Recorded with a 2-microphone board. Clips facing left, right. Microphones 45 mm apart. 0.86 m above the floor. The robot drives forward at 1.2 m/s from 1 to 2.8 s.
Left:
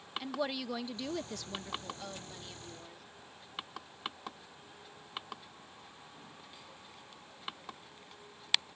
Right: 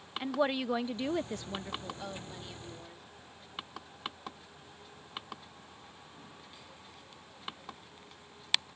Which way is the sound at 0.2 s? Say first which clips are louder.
Right 6 dB; 30° right (ahead or behind).